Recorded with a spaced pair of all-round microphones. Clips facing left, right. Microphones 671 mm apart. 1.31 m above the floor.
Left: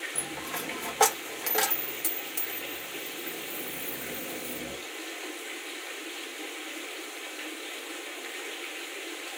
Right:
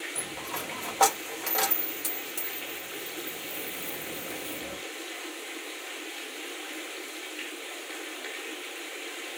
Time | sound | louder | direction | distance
0.1 | a dropped coin | left 4 dB | 45° left (ahead or behind) | 1.0 m